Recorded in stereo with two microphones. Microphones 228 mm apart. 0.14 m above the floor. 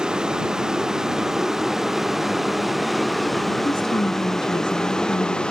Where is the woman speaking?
20° left (ahead or behind).